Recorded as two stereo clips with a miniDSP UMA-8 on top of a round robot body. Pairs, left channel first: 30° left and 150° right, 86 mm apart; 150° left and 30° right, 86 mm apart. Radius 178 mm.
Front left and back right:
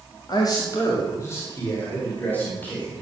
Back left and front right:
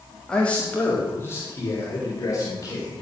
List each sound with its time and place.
0.3 s a man speaking: 70° left, 2.5 m; by 3.0 s 100° left, 5.5 m